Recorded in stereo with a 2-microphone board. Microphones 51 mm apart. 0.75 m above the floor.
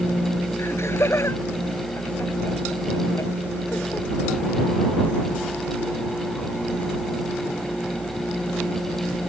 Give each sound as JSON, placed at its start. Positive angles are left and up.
{"t": 0.6, "sound": "laughter", "side_deg": 50}